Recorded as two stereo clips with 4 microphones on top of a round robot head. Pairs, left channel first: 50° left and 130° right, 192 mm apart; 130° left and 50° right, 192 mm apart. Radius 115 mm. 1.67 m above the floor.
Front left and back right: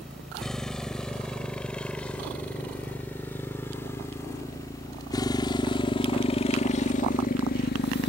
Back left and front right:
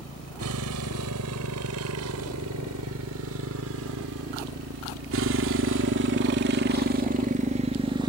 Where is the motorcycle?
40° right; by 8.1 s 20° left.